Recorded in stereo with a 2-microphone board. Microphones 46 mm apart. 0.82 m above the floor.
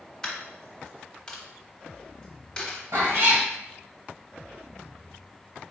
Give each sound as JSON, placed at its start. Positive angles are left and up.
{"t": 0.2, "sound": "a dropped coin", "side_deg": 15, "distance_m": 1.1}
{"t": 2.9, "sound": "a cat meowing", "side_deg": -80, "distance_m": 1.9}